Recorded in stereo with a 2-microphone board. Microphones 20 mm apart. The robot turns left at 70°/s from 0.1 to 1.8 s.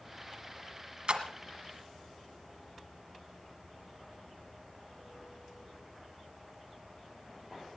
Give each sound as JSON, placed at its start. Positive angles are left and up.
{"t": 1.1, "sound": "a splash", "side_deg": -50, "distance_m": 1.6}